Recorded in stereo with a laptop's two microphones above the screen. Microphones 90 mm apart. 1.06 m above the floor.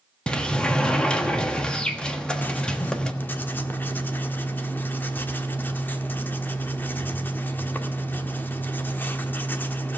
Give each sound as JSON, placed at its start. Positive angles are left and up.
{"t": 0.3, "sound": "a sliding door", "side_deg": 10, "distance_m": 1.2}
{"t": 2.4, "sound": "writing", "side_deg": 25, "distance_m": 1.2}